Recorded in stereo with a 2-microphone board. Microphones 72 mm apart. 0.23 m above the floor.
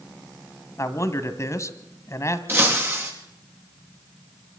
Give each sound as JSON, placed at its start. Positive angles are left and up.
{"t": 0.8, "sound": "a man speaking", "side_deg": 40, "distance_m": 1.6}
{"t": 2.5, "sound": "breaking glass", "side_deg": -30, "distance_m": 5.0}